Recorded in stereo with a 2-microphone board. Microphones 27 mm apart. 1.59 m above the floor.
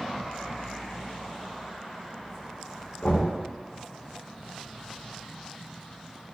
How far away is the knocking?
About 0.6 m.